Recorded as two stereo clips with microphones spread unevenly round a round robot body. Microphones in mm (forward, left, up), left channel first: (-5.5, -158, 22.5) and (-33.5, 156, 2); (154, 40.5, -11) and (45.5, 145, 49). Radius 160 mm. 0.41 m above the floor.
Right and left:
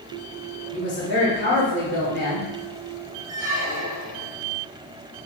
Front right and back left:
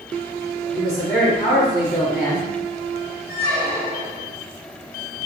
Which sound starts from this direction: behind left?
A squeak, at 3.3 s.